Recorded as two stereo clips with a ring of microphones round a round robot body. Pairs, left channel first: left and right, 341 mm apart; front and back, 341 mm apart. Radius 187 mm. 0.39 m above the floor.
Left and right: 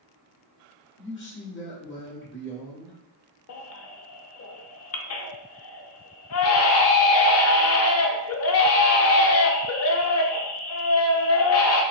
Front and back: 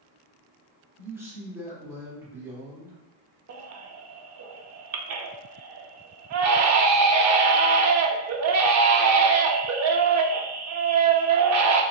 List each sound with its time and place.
1.0 s a man speaking: 100° left, 1.2 m
3.5 s a baby crying: 135° left, 0.5 m